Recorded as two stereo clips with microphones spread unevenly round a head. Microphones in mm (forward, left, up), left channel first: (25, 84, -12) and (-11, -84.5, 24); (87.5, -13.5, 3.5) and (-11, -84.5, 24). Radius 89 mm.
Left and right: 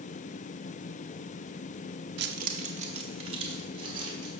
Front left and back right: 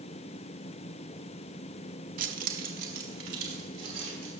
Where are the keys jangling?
135° right, 0.6 m; by 4.3 s 170° right, 2.5 m.